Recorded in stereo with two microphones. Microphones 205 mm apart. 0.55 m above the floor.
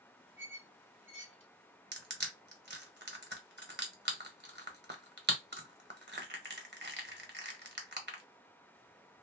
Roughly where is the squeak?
Right.